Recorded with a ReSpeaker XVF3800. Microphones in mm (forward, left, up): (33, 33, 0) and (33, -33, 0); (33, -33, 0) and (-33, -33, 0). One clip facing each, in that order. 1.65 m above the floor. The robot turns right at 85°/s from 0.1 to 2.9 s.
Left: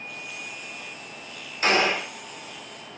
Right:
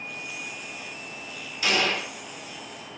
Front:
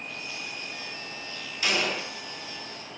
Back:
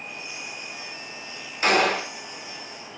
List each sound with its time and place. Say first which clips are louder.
1.6 s a gunshot: left 3 dB, back 8 dB; 135° left, 2 m; by 2.1 s straight behind, 2 m